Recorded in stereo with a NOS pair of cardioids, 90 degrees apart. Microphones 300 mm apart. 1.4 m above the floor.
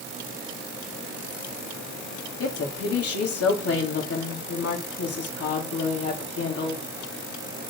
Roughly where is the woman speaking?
Ahead left.